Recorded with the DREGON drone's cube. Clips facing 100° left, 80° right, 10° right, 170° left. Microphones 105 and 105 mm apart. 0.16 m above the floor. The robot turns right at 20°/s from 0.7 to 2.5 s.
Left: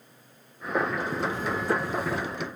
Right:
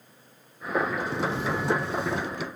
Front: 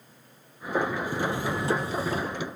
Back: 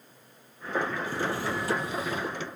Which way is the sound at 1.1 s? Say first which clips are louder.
Right 1 dB, front 2 dB; 85° right.